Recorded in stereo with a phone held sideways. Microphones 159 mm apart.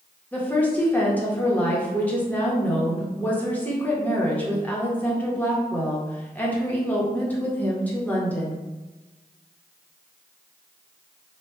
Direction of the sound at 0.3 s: 10° left (ahead or behind).